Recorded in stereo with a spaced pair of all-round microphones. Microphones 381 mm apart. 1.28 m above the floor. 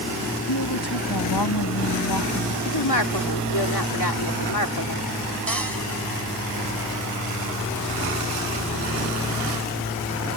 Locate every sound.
0.5 s a woman speaking: 80° left
2.6 s a woman speaking: 75° left (ahead or behind)
5.5 s a cupboard door: 60° right (ahead or behind)